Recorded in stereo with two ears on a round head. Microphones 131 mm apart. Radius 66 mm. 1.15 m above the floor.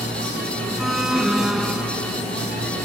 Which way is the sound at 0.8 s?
5° right (ahead or behind).